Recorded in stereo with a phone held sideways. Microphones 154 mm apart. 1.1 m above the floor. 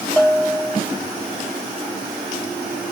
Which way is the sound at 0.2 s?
5° left (ahead or behind).